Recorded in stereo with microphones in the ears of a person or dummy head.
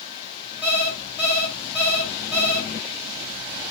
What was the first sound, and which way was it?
An alarm clock, 5° left (ahead or behind).